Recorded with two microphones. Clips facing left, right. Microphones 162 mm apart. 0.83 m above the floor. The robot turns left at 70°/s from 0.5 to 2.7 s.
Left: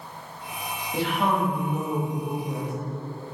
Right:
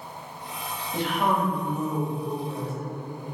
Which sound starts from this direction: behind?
A woman speaking, at 0.9 s.